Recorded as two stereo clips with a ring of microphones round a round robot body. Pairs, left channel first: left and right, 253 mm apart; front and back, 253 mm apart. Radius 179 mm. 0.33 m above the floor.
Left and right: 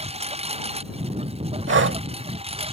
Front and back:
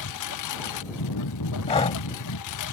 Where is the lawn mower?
25° right.